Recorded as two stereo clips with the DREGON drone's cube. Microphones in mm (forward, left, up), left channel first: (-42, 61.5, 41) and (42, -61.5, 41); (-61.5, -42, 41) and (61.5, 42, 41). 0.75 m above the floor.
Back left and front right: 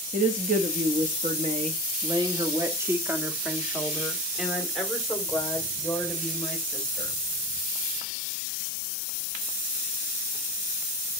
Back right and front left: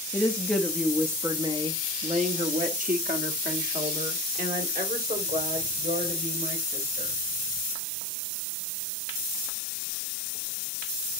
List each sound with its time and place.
0.1 s a woman speaking: 70° right, 0.9 m; by 7.1 s 45° left, 3 m